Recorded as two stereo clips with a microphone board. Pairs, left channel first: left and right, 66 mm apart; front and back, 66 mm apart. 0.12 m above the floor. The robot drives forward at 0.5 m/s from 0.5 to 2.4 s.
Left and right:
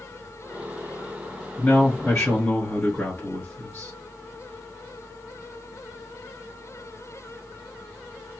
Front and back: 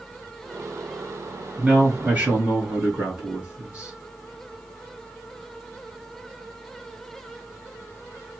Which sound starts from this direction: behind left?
A man speaking, at 1.6 s.